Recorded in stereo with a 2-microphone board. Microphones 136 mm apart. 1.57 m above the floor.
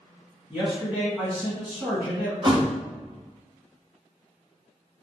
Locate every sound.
0.5 s a man speaking: 10° right (ahead or behind), 1.6 m
2.4 s a thud: 35° right (ahead or behind), 1.1 m